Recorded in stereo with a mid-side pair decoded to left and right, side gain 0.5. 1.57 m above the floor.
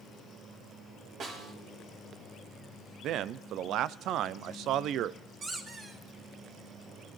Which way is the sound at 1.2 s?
65° right.